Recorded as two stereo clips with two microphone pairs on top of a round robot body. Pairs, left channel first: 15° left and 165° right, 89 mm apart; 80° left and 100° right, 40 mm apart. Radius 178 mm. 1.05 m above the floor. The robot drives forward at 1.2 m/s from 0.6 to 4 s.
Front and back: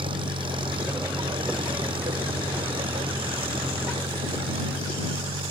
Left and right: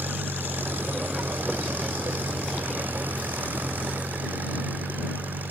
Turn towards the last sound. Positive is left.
turn(degrees=-145)